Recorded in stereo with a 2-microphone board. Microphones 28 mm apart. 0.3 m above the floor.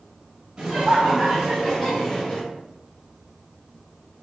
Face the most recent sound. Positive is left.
turn(degrees=20)  # may be behind; listen again after turning